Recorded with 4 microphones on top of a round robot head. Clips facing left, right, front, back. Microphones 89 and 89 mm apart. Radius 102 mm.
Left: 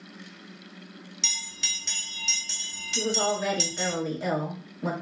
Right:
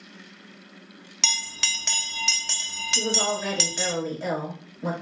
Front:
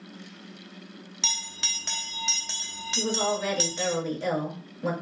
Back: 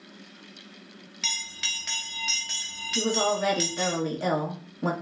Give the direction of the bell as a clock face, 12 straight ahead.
2 o'clock.